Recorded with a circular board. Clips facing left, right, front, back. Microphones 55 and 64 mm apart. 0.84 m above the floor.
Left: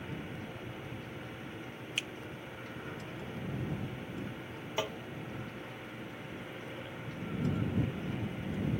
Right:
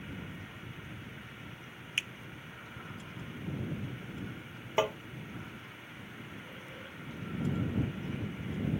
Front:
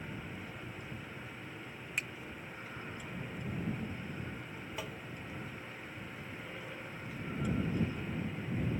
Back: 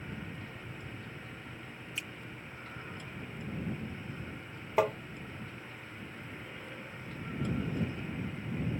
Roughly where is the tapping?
Behind right.